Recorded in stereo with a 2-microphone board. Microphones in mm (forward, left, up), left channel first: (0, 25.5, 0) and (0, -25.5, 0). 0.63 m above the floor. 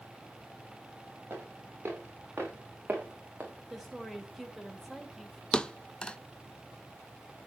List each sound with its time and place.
1.3 s footsteps: 45° right (ahead or behind), 6 m; by 3.5 s 25° right (ahead or behind), 3 m
3.7 s a woman speaking: 5° right (ahead or behind), 2 m
5.5 s a thud: 15° left (ahead or behind), 0.6 m